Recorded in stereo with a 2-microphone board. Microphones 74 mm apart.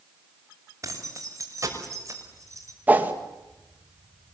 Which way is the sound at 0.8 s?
45° right (ahead or behind).